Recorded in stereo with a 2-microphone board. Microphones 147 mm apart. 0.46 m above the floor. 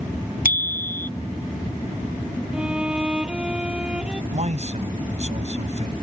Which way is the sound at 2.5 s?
5° right (ahead or behind).